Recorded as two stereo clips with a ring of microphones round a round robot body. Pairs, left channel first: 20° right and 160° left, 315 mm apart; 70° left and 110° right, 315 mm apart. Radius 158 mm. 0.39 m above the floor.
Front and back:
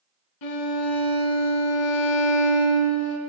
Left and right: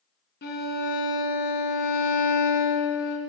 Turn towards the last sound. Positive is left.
turn(degrees=5)